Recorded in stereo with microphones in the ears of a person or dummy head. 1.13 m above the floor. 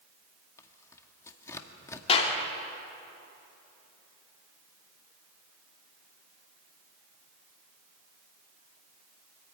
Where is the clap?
35° left (ahead or behind), 3 m.